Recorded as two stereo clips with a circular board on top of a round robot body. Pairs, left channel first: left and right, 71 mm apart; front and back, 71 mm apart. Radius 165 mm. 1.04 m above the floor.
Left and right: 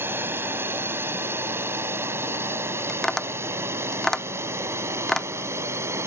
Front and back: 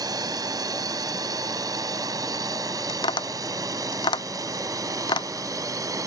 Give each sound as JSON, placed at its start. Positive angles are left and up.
{"t": 0.0, "sound": "a drone", "azimuth_deg": -150}
{"t": 2.9, "sound": "tapping", "azimuth_deg": 5}